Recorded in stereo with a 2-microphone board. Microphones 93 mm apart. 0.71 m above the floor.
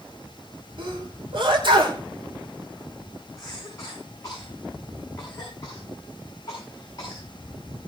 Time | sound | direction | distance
0.8 | a sneeze | 55° right (ahead or behind) | 3 m
3.4 | a cough | 35° left (ahead or behind) | 6 m